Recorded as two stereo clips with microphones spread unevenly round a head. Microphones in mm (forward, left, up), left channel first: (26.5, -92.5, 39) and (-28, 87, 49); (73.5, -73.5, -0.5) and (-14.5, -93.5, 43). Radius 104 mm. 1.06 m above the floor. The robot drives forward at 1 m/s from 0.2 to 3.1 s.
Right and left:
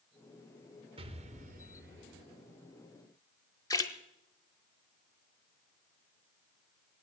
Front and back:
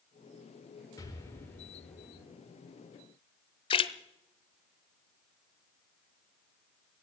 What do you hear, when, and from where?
1.0 s an explosion: 45° left, 1.6 m; by 2.2 s 105° left, 1.2 m
3.7 s a splash: 5° right, 0.7 m